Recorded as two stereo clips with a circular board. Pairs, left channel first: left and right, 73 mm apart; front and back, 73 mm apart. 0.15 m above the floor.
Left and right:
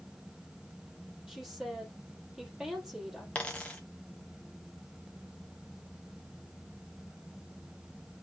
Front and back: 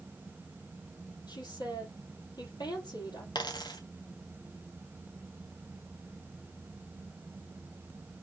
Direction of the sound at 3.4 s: 20° left.